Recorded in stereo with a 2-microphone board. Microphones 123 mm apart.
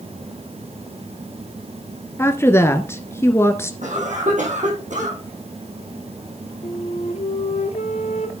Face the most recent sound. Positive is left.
turn(degrees=65)  # may be behind; listen again after turning